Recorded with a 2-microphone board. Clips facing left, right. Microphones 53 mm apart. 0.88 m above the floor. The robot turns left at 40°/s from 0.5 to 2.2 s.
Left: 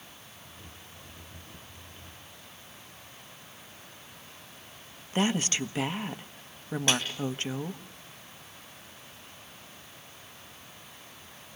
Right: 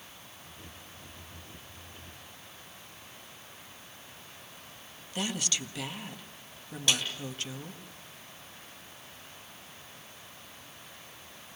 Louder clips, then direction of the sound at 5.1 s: Left 7 dB; 35° left (ahead or behind).